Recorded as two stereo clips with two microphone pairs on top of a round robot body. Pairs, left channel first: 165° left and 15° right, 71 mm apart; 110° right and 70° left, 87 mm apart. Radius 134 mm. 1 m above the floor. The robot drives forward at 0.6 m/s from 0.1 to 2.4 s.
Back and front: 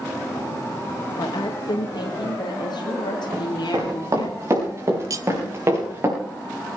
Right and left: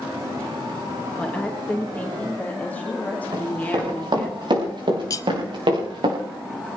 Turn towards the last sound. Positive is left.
turn(degrees=-60)